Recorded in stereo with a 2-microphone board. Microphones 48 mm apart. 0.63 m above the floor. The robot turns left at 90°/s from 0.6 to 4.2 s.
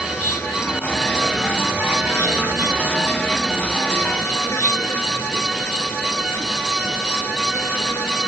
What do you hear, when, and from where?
0.0 s an insect: 60° left; by 8.3 s 95° left